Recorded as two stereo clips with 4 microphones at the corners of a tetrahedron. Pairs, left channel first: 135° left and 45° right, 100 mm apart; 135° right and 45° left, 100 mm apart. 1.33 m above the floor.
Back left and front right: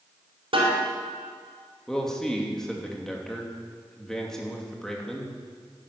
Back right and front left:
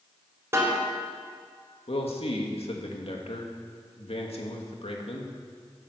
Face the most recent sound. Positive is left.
turn(degrees=-140)